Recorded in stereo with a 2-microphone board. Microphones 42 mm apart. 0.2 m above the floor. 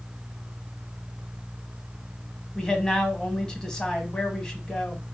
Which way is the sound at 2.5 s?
15° left (ahead or behind).